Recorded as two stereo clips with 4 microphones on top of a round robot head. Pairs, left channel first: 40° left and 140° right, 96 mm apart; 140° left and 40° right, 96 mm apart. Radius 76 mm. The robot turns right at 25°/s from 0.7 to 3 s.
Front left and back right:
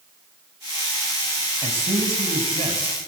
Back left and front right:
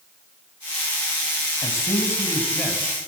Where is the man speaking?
165° right, 4.5 m; by 3.0 s 130° right, 4.5 m.